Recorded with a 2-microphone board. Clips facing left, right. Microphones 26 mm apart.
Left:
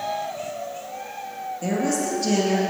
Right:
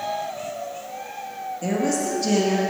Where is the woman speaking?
5° right (ahead or behind), 3 m.